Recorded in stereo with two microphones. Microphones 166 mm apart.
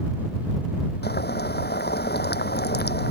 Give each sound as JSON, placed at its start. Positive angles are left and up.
{"t": 1.0, "sound": "boiling", "side_deg": 80}